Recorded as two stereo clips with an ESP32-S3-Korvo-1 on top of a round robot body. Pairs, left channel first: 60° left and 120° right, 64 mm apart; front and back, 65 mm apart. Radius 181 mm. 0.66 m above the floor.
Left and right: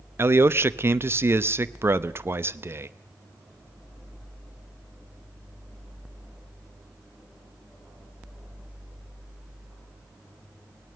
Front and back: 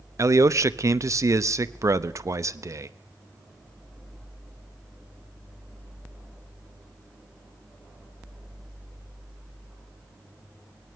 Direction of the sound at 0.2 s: 165° right.